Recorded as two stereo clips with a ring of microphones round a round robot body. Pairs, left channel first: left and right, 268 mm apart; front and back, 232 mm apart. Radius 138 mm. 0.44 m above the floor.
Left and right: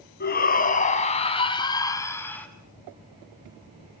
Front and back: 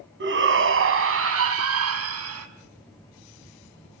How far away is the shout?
About 4 m.